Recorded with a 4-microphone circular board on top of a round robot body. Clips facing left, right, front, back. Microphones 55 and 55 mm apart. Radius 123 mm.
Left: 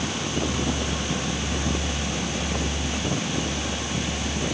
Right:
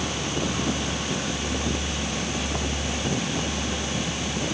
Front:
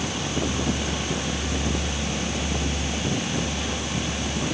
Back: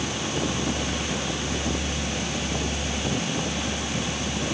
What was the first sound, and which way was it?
Only background noise.